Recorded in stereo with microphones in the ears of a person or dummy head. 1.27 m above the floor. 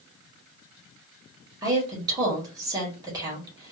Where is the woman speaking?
15° right (ahead or behind), 1.4 m.